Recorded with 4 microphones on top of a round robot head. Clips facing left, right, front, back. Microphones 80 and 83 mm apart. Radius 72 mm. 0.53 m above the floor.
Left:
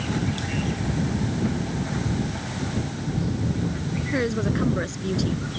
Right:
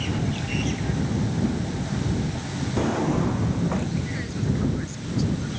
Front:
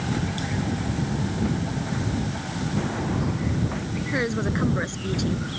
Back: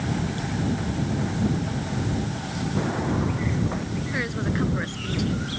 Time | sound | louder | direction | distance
2.8 | a drawer | right 9 dB, back 2 dB | 100° right | ?
4.1 | a woman speaking | left 5 dB, front 3 dB | 65° left | ?